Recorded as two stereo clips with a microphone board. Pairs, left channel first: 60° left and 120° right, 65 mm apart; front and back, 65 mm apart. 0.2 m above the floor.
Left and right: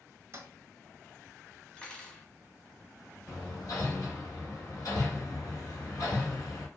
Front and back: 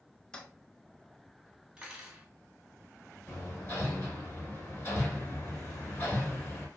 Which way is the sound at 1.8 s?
125° left.